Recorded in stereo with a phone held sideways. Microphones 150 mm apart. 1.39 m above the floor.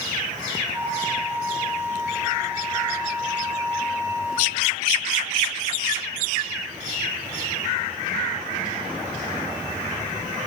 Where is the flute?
15° right (ahead or behind), 3 m.